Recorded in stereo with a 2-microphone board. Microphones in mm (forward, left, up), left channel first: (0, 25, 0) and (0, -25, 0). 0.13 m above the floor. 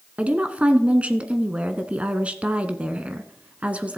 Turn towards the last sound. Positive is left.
turn(degrees=-25)  # may be behind; listen again after turning